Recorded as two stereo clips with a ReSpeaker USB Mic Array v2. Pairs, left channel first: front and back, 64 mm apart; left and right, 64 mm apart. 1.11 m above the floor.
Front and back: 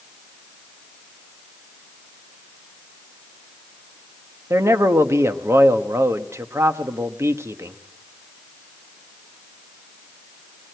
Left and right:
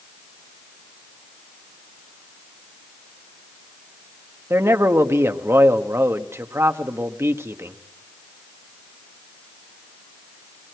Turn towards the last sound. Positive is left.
turn(degrees=-135)